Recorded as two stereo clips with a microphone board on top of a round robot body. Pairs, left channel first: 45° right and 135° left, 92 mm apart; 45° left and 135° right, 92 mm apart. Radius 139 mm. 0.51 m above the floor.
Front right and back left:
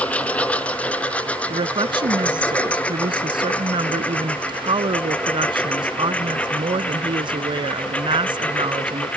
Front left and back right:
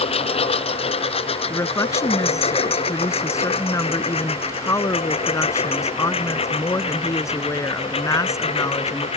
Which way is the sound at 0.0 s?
30° left.